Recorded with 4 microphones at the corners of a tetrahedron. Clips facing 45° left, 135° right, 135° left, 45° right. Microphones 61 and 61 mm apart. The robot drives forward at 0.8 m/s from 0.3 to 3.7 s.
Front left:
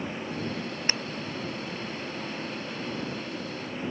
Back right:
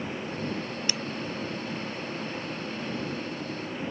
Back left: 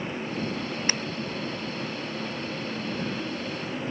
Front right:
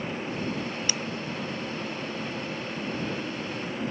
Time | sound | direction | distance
0.9 | breaking glass | 95° left | ?